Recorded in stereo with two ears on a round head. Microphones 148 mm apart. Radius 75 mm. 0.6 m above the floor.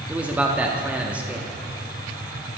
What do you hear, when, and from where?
0.1 s a man speaking: 10° right (ahead or behind), 0.7 m